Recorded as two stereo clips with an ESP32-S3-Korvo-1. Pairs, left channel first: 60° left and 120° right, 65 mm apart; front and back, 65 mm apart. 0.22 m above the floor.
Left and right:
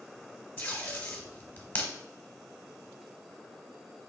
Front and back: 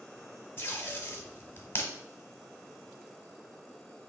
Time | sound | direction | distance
0.6 | tape being pulled | 20° left | 1.0 m